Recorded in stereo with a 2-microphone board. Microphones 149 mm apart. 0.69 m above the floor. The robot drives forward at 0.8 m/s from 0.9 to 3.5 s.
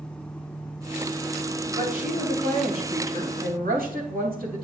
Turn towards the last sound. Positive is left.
turn(degrees=-80)